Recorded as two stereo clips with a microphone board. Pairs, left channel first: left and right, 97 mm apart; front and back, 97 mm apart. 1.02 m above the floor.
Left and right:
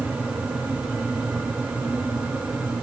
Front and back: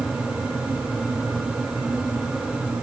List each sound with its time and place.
Only background noise.